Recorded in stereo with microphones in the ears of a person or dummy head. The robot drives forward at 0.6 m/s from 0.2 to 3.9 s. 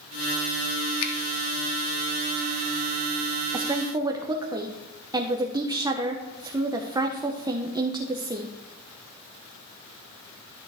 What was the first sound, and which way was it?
A finger snap, 80° left.